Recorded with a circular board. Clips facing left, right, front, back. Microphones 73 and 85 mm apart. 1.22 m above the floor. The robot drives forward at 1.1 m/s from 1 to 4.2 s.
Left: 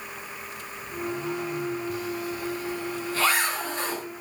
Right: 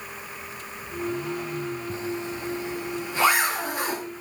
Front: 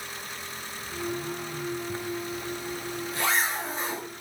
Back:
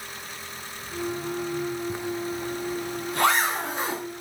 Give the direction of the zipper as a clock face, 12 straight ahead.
4 o'clock.